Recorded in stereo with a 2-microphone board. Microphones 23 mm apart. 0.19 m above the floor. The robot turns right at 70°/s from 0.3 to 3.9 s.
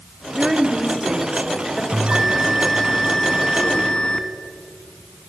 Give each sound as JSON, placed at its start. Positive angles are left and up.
{"t": 0.3, "sound": "a woman speaking", "side_deg": -10, "distance_m": 1.1}
{"t": 1.9, "sound": "a bell", "azimuth_deg": -65, "distance_m": 0.6}